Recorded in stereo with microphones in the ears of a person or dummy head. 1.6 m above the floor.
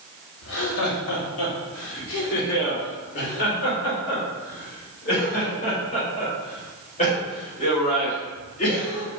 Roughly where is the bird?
No bird in this recording.